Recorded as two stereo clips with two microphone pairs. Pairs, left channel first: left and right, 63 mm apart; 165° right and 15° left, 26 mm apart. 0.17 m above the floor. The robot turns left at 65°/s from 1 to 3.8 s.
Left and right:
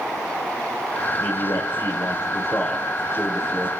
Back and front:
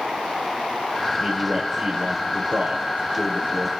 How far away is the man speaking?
About 3 m.